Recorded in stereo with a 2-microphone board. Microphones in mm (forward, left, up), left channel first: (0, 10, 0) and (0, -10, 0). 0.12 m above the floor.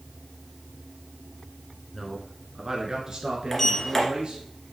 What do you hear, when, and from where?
1.9 s a man speaking: 10° left (ahead or behind), 1.3 m; by 4.4 s 45° right (ahead or behind), 2.5 m
3.5 s a sliding door: 20° left (ahead or behind), 1.7 m